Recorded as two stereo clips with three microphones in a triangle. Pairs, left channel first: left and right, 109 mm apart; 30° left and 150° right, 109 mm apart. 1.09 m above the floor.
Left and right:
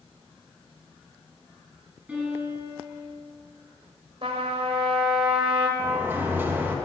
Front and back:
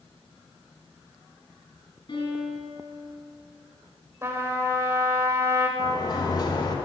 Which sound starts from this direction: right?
A trumpet, at 4.2 s.